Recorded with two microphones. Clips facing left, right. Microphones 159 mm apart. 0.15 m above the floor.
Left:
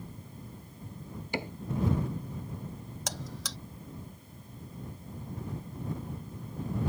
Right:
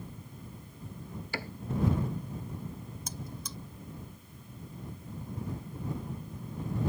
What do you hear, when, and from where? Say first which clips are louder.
1.3 s a cupboard door: left 5 dB; 20° left (ahead or behind)
3.1 s a buzzer: left 5 dB; 80° left